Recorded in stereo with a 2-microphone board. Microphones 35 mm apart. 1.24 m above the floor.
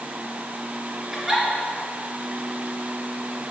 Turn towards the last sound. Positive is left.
turn(degrees=-10)  # may be behind; listen again after turning